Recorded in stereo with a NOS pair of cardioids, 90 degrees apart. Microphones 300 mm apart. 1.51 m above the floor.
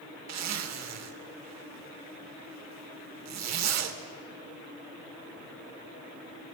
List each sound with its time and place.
0.3 s a zipper: 60° right, 2.5 m